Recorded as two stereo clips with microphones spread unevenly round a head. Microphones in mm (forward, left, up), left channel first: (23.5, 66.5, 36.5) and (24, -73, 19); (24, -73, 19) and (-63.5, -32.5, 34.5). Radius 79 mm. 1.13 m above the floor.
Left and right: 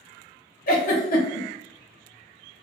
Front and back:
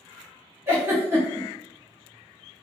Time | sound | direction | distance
0.7 | a giggle | 80° left | 0.9 m